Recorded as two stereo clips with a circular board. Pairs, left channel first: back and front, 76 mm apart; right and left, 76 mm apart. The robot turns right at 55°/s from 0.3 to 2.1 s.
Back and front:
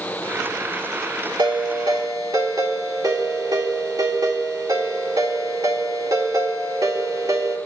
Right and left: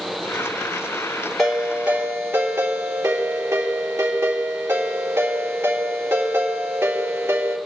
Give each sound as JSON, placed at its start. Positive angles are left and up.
{"t": 1.4, "sound": "a ringtone", "azimuth_deg": -10, "distance_m": 3.5}